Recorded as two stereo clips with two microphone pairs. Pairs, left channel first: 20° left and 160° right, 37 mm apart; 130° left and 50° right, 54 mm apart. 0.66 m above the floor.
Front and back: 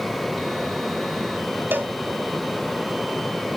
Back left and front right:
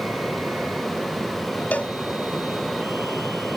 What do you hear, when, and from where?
1.7 s a cowbell: 170° right, 1.1 m